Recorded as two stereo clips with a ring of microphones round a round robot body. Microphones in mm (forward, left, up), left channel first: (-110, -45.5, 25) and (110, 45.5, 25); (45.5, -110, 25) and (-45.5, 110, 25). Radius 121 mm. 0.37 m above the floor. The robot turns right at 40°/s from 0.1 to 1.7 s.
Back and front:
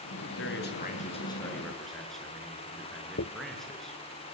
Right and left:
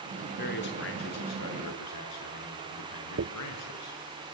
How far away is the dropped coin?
About 1.0 m.